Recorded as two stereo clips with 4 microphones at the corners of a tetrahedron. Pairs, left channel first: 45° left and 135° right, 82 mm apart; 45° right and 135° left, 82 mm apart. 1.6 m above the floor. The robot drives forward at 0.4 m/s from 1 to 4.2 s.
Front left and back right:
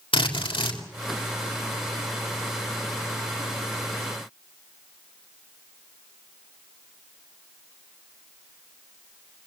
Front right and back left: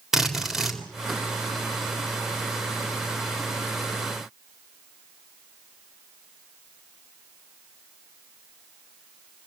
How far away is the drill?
About 3.5 m.